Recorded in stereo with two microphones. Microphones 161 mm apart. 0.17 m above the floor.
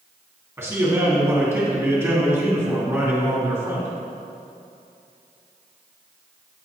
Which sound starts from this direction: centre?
A man speaking, at 0.6 s.